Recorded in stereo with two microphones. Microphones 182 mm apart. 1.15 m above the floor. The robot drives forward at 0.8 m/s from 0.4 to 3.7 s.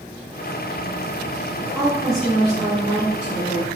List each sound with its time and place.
1.8 s a woman speaking: centre (ahead or behind), 1.7 m